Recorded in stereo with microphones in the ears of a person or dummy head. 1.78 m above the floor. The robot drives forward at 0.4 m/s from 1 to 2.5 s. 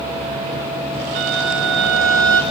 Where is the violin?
70° right (ahead or behind), 1.3 m; by 2.4 s 65° right (ahead or behind), 1.3 m.